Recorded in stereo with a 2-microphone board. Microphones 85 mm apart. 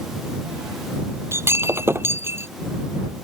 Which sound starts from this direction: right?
Breaking glass, at 1.3 s.